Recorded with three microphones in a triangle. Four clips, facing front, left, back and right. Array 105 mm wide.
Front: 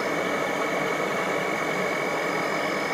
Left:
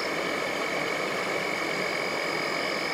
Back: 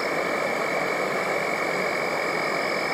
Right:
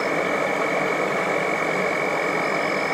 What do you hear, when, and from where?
0.0 s an insect: 100° right, 1.4 m